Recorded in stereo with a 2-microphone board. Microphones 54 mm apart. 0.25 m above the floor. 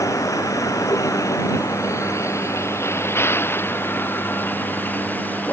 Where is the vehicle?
80° left; by 5.5 s 30° left (ahead or behind).